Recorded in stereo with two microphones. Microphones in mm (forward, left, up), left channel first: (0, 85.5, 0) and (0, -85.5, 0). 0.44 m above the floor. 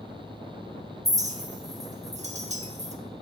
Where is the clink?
40° right (ahead or behind), 0.8 m.